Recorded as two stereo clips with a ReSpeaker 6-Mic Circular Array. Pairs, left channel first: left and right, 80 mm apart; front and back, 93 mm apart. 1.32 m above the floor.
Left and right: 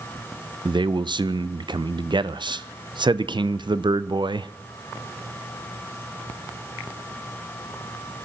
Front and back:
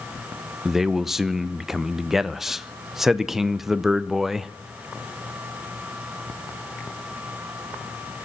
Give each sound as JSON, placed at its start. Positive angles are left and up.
{"t": 0.7, "sound": "a man speaking", "azimuth_deg": -95, "distance_m": 0.5}